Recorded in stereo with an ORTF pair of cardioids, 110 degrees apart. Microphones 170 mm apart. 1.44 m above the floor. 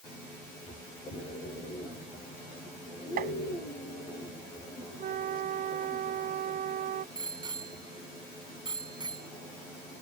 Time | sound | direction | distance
3.2 | tapping | 55° right | ?
5.0 | a flute | 55° right | ?
7.2 | a bicycle bell | 25° right | ?